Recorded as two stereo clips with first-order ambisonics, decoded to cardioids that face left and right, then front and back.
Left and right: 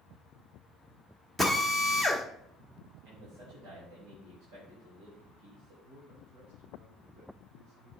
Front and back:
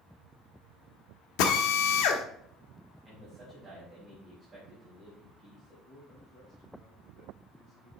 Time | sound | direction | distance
1.4 | a drill | 5° right | 1.1 m
3.0 | a man speaking | 110° right | 4.5 m
5.8 | a man speaking | 75° right | 5.5 m